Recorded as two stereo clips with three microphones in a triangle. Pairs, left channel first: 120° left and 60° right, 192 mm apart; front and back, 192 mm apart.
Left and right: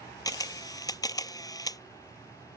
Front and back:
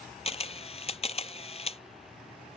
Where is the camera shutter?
50° left.